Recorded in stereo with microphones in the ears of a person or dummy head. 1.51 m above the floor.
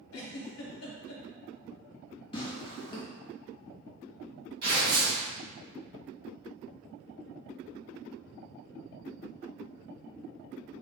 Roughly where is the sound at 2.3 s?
Left.